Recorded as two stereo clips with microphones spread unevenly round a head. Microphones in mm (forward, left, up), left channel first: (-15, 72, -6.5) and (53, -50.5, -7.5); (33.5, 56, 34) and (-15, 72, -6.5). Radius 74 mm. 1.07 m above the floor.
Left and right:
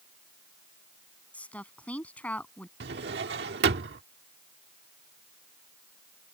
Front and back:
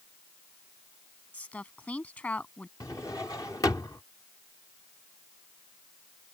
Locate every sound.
1.3 s a woman speaking: 40° left
2.8 s a drawer: 70° right